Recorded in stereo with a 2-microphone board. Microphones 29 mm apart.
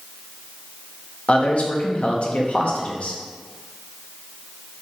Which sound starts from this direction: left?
A man speaking, at 1.3 s.